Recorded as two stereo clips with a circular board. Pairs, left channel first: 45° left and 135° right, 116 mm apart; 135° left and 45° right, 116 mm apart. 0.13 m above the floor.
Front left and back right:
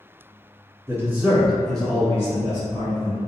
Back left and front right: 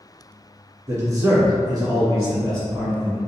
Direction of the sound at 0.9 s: 85° right.